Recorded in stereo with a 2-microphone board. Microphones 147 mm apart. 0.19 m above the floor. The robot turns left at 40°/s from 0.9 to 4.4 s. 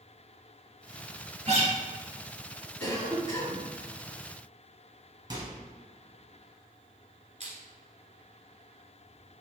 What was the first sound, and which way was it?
A guitar, 45° right (ahead or behind).